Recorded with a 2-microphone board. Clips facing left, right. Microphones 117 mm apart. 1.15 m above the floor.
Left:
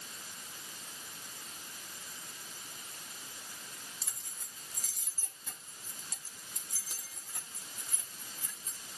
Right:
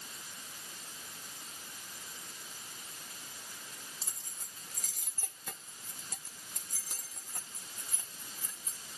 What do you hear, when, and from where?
4.0 s keys jangling: 30° right (ahead or behind), 1.0 m